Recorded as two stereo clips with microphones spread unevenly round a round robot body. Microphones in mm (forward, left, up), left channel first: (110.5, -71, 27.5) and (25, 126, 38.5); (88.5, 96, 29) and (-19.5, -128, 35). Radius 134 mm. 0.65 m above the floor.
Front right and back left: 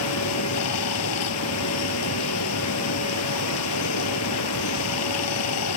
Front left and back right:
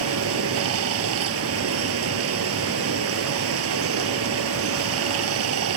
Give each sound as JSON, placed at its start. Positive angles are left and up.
{"t": 0.0, "sound": "running water", "azimuth_deg": -85}